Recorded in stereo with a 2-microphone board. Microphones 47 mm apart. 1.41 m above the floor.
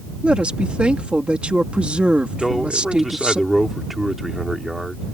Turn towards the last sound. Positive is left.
turn(degrees=-5)  # may be behind; listen again after turning